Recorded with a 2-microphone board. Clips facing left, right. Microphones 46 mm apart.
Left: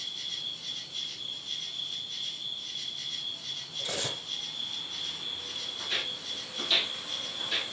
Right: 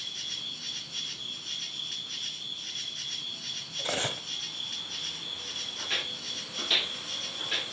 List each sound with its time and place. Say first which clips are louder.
0.0 s an insect: even; 75° right (ahead or behind), 1.6 m
3.8 s cutlery clinking: right 4 dB; 40° right (ahead or behind), 1.0 m
5.8 s footsteps: right 1 dB; 35° right (ahead or behind), 6 m; by 7.6 s 25° right (ahead or behind), 8 m